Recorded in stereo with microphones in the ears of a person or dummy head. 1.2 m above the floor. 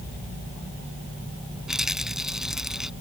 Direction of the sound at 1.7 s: 5° right (ahead or behind).